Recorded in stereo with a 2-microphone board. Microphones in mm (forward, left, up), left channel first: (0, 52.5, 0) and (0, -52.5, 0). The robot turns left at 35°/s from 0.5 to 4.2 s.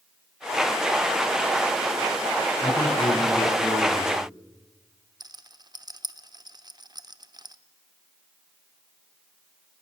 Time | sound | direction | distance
2.6 | a man speaking | 45° left | 5 m
5.2 | a rattle | 40° right (ahead or behind) | 0.8 m